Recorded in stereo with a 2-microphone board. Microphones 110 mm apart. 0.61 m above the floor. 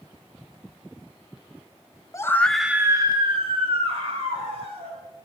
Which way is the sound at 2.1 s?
30° left (ahead or behind).